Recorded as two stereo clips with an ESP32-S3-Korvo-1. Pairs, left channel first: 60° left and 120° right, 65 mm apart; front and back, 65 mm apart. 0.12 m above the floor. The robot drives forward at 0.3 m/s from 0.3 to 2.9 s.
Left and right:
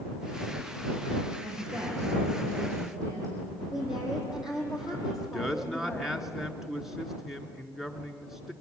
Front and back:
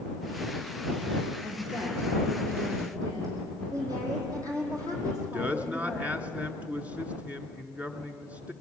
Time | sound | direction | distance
1.4 | a woman speaking | 140° right | 8 m
3.7 | a woman speaking | 160° left | 4.5 m
5.1 | a man speaking | 160° left | 1.2 m